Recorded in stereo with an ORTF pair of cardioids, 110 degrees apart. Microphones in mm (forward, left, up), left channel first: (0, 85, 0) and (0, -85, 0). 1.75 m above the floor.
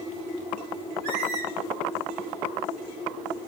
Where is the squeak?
65° right, 2.5 m.